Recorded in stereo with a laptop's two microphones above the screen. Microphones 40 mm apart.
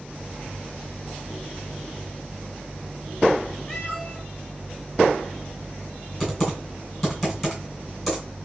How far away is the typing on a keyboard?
About 2.5 m.